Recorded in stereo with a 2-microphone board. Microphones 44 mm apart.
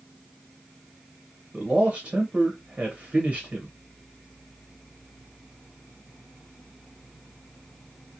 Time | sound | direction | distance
1.5 | a man speaking | 25° right (ahead or behind) | 0.9 m